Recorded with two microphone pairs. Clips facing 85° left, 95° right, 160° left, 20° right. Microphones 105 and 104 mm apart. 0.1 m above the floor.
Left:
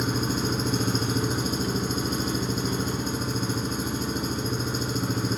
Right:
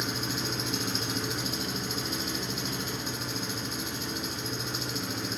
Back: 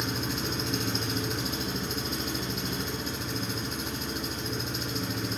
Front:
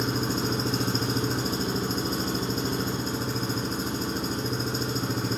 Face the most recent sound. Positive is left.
turn(degrees=35)